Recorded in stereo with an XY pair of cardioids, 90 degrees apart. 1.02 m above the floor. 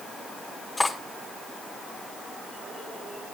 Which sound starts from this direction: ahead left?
Cutlery clinking, at 0.8 s.